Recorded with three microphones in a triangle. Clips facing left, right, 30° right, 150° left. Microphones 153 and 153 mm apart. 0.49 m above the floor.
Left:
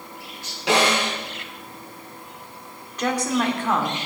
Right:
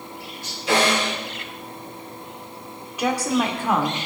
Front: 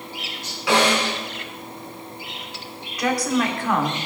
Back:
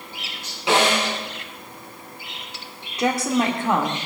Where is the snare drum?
85° left, 4 m.